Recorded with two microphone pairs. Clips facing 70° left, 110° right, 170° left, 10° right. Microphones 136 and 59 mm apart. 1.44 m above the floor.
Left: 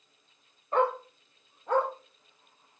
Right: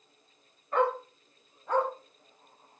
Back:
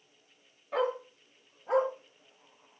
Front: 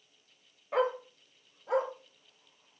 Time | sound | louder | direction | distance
0.7 | a dog barking | left 1 dB, front 1 dB | 50° left | 0.9 m